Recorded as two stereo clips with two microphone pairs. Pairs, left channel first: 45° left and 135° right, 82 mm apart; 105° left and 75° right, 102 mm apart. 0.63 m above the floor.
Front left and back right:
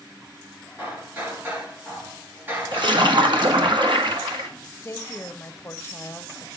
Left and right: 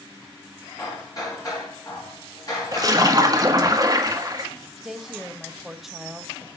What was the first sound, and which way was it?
Hammering, 155° left.